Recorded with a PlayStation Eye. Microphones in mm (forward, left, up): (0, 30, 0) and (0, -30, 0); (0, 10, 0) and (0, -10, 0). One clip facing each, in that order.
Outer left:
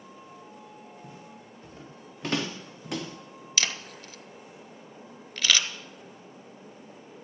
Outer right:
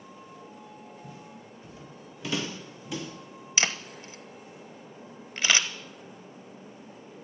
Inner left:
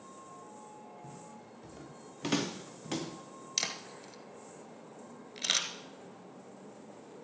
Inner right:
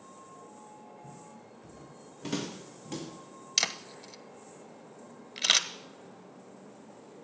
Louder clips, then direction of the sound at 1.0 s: Outer right 1 dB, even; 40° left (ahead or behind).